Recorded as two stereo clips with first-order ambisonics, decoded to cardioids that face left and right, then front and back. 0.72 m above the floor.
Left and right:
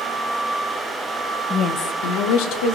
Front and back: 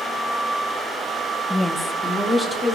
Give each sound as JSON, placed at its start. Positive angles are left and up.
{"t": 1.5, "sound": "a woman speaking", "azimuth_deg": 65, "distance_m": 0.5}